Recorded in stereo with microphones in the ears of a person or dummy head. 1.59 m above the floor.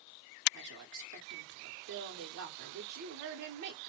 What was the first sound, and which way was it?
A woman speaking, 65° right (ahead or behind).